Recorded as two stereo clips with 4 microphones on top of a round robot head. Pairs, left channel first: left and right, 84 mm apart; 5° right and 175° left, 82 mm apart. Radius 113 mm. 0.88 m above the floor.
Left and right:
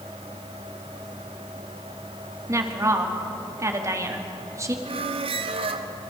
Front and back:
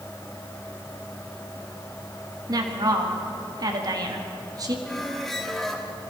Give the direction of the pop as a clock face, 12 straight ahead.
I don't hear a pop.